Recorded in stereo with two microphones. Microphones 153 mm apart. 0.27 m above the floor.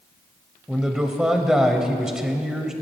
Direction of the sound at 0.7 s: 5° right (ahead or behind).